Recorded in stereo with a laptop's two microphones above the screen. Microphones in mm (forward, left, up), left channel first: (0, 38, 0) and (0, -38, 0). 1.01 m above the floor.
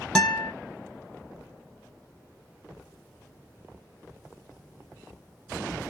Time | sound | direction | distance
0.1 | a guitar | 10° left (ahead or behind) | 0.5 m